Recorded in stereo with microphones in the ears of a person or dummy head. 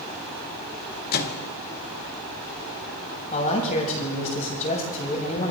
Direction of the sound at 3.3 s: 35° left (ahead or behind).